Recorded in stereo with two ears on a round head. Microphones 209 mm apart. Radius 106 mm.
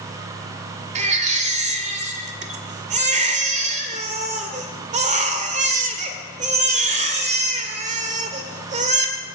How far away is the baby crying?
About 1.9 m.